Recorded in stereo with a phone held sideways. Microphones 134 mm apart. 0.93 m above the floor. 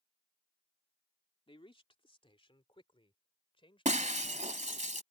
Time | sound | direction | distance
1.5 | a man speaking | 40° left (ahead or behind) | ?
3.9 | breaking glass | 65° right (ahead or behind) | ?